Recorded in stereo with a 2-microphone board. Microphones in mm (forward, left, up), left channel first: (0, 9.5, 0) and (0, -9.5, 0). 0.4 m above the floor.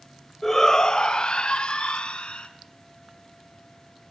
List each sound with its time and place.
0.4 s a shout: 20° left (ahead or behind), 1.4 m; by 2.5 s 70° left (ahead or behind), 4 m